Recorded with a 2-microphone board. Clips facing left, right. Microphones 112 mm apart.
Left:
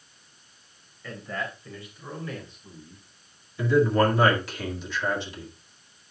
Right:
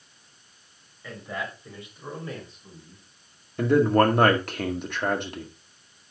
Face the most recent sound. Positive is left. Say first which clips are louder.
# right 2 dB
turn(degrees=-60)  # may be behind; listen again after turning